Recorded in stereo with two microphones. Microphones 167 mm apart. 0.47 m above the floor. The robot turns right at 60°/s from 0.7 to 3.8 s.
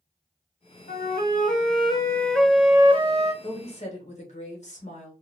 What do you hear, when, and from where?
0.9 s a flute: 85° left, 0.8 m; by 3.3 s 125° right, 0.8 m
3.4 s a woman speaking: 30° left (ahead or behind), 1.5 m; by 5.1 s 45° left (ahead or behind), 1.5 m